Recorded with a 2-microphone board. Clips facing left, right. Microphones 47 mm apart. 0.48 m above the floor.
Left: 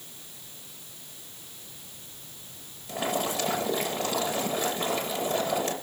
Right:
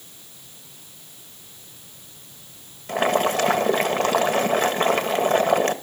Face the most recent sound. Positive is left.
turn(degrees=-60)  # may be behind; listen again after turning